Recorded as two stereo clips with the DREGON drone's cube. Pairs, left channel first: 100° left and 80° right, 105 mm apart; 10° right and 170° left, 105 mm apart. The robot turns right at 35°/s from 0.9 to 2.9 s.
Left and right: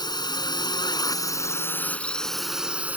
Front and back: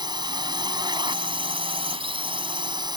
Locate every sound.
0.0 s a drone: 135° left; by 3.0 s 155° right